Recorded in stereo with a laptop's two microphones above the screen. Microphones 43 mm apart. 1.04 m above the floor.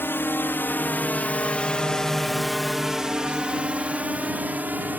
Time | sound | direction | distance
0.0 | a drone | 60° left (ahead or behind) | ?